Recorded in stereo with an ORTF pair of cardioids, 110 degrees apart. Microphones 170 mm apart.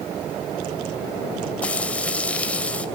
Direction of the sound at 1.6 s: 10° left.